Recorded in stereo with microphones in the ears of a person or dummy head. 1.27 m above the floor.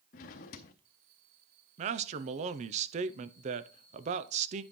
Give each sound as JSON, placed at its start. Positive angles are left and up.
{"t": 0.1, "sound": "a drawer", "side_deg": 40, "distance_m": 0.8}
{"t": 1.8, "sound": "a man speaking", "side_deg": -40, "distance_m": 0.7}